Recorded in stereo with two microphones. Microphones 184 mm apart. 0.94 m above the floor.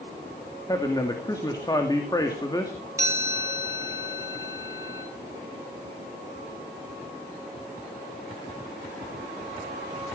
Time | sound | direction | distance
0.7 | a man speaking | 20° left (ahead or behind) | 2.5 m
3.0 | a chime | 15° right (ahead or behind) | 4.5 m